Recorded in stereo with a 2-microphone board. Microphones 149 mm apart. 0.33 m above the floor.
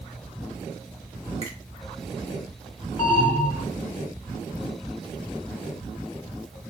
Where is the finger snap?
45° right (ahead or behind), 1.6 m.